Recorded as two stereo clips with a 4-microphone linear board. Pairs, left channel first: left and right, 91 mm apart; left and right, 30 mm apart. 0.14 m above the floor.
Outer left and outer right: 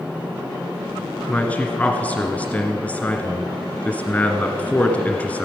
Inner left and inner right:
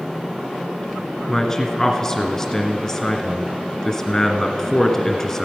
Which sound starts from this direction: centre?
A man speaking, at 1.3 s.